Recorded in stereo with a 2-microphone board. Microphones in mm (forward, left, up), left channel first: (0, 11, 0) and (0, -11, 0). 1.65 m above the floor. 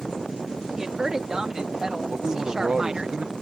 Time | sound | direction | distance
0.7 | a woman speaking | 25° right (ahead or behind) | ?
2.1 | a man speaking | 70° right (ahead or behind) | ?